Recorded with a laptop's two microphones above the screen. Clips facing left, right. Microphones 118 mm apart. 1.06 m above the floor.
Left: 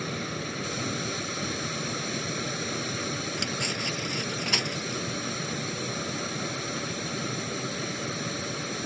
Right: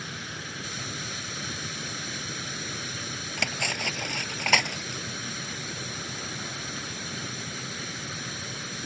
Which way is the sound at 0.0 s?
55° left (ahead or behind).